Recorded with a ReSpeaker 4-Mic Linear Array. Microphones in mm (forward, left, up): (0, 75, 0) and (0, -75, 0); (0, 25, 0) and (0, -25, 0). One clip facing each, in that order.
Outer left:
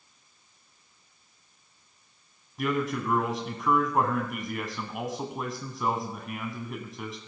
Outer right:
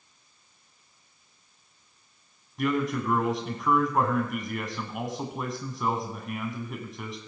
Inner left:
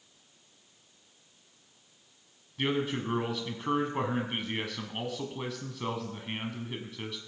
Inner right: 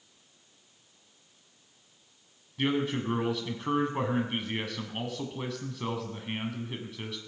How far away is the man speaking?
About 1.0 m.